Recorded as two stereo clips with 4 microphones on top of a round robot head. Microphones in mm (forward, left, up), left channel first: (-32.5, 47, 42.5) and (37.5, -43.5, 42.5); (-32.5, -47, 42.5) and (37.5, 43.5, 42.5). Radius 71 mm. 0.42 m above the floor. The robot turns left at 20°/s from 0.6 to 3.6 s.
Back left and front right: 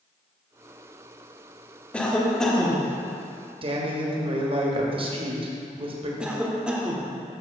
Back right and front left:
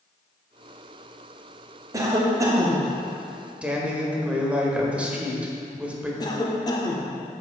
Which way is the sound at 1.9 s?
55° left.